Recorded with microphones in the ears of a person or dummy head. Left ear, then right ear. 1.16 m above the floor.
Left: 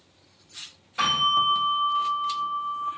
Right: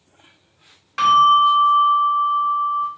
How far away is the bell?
About 1.6 m.